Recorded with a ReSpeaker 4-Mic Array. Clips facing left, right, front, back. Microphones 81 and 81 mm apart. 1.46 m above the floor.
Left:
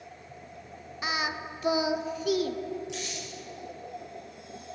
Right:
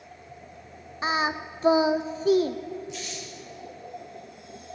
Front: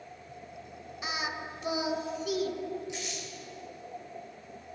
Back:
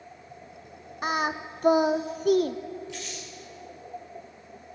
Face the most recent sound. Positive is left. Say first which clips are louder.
# even, even
turn(degrees=70)